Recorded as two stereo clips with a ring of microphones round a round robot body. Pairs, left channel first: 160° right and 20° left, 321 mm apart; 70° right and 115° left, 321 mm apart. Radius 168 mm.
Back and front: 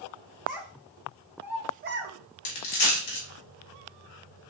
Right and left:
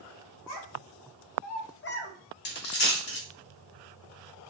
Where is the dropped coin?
125° right, 1.0 m.